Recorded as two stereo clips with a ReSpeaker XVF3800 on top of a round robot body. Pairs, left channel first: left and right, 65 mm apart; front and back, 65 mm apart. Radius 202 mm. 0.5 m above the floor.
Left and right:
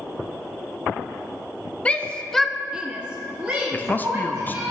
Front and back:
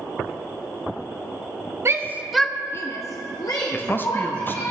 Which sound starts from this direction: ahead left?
A man speaking, at 3.7 s.